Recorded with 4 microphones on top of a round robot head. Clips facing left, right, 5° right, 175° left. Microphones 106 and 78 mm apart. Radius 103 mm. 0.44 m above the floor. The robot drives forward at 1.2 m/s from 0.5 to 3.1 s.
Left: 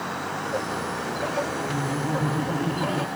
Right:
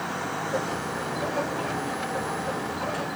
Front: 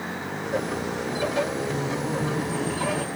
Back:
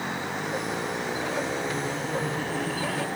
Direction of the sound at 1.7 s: 65° left.